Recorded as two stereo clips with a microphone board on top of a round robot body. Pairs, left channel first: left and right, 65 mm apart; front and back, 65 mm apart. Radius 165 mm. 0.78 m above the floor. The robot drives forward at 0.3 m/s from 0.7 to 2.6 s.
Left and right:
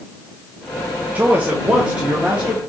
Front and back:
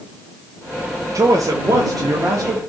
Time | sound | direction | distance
1.1 | a man speaking | 155° right | 0.6 m